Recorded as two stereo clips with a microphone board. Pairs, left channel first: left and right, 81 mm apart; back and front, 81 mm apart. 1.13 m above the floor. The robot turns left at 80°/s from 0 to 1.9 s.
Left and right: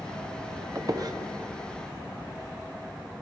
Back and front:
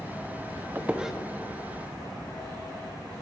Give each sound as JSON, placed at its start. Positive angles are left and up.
{"t": 0.8, "sound": "a squeak", "azimuth_deg": -60, "distance_m": 0.7}